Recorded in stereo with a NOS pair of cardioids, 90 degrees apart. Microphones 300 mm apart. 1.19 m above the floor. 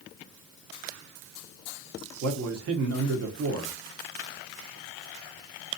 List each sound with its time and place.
2.2 s a man speaking: 55° right, 1.1 m